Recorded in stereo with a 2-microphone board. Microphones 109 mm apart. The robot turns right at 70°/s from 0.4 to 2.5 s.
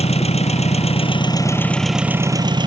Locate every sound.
0.0 s an engine running: 75° left; by 2.7 s 135° right